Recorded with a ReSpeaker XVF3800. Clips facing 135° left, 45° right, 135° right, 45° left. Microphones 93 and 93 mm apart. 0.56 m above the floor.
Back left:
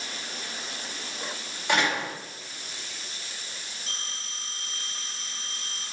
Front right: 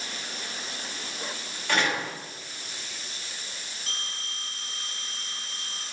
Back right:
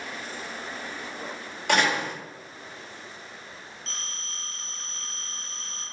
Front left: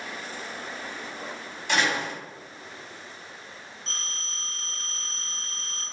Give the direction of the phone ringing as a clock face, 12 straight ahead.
1 o'clock.